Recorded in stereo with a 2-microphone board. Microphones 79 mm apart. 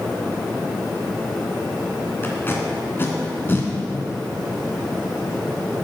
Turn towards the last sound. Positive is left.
turn(degrees=30)  # may be behind; listen again after turning